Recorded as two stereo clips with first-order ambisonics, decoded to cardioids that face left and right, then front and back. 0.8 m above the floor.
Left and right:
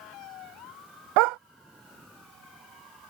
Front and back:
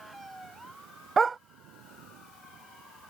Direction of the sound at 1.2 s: 105° right.